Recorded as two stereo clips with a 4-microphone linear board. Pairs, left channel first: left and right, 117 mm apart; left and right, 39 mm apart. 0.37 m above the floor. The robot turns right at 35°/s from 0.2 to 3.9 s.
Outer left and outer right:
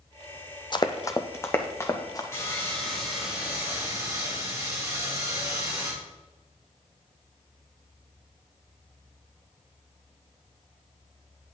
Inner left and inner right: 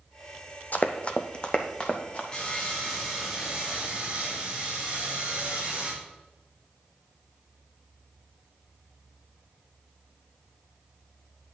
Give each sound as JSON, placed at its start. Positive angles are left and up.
{"t": 0.7, "sound": "running footsteps", "side_deg": 40, "distance_m": 0.7}
{"t": 2.3, "sound": "sawing", "azimuth_deg": 155, "distance_m": 3.5}